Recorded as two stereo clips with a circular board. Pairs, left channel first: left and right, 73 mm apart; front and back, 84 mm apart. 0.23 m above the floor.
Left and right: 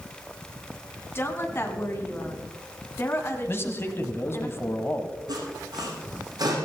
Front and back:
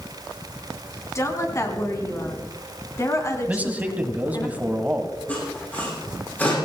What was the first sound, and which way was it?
A woman speaking, 45° left.